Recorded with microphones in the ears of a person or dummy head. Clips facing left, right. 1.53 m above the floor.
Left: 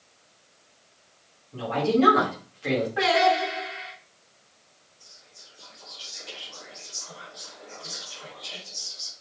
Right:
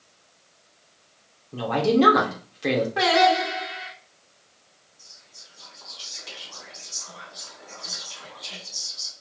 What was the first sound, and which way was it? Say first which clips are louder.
A woman speaking: right 3 dB; 65° right (ahead or behind).